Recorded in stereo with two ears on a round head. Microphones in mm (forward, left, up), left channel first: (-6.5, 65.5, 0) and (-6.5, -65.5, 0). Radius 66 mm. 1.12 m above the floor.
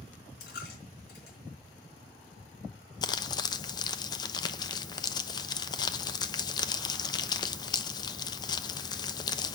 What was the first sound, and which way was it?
A dropped coin, 75° left (ahead or behind).